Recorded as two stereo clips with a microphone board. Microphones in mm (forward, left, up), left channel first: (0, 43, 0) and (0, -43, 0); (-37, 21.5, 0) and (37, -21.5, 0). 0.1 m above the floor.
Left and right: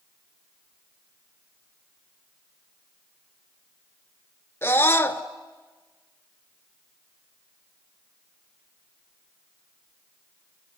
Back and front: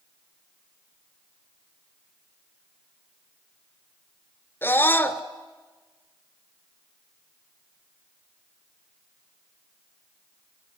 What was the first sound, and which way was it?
A scream, 120° left.